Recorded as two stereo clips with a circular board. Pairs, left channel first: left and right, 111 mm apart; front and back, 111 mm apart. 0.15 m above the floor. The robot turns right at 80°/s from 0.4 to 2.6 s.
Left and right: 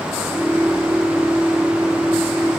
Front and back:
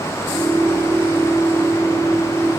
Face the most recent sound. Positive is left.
No sound to turn to.